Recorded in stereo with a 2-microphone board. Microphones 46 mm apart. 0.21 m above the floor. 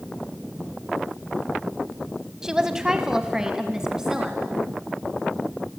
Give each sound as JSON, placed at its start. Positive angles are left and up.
{"t": 2.4, "sound": "a woman speaking", "side_deg": -10, "distance_m": 1.3}